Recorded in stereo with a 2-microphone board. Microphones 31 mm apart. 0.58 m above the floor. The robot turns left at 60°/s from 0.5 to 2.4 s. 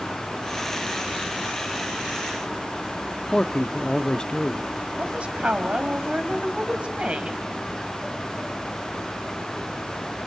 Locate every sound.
3.3 s a man speaking: 25° left (ahead or behind), 0.9 m
5.0 s a woman speaking: 40° right (ahead or behind), 3.5 m